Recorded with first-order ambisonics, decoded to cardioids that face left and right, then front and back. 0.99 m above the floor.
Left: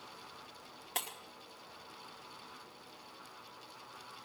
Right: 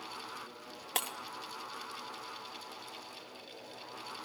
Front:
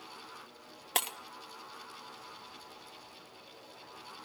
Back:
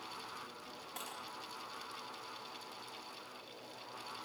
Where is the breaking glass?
25° right, 1.2 m.